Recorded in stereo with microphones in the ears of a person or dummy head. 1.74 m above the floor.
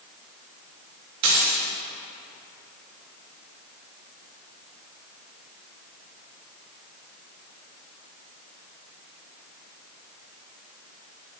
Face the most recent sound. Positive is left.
turn(degrees=-55)  # may be behind; listen again after turning